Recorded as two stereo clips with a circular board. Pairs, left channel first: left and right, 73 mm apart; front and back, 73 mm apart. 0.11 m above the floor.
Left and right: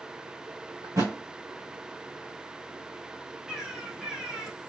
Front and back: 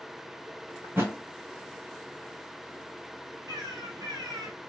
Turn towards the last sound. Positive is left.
turn(degrees=-170)